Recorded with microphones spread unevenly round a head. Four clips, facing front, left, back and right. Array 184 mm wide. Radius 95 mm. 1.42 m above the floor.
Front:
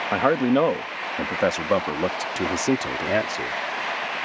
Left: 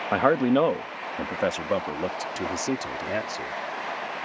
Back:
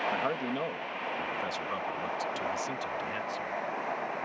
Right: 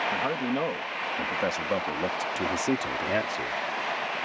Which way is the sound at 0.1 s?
45° left.